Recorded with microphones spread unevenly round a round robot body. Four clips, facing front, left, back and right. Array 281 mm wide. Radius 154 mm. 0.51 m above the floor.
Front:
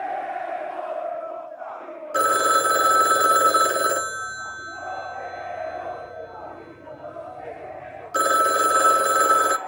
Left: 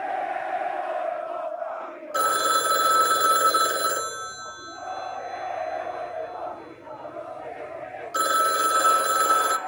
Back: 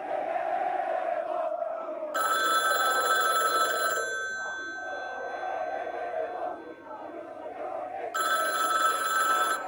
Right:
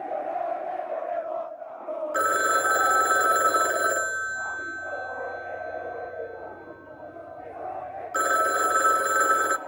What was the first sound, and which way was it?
A phone ringing, 10° right.